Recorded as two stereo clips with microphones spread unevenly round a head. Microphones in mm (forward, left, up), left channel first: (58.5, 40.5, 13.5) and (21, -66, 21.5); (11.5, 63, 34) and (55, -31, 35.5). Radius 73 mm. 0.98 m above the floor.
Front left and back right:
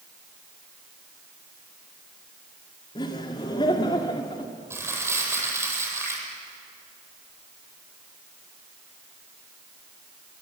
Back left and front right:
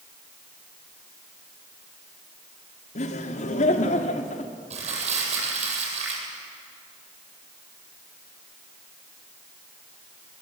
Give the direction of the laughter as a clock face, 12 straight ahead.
8 o'clock.